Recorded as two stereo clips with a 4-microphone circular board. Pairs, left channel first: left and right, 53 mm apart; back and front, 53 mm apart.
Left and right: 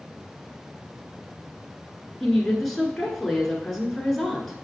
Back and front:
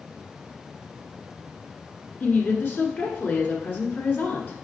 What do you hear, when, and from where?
2.2 s a woman speaking: 175° left, 1.4 m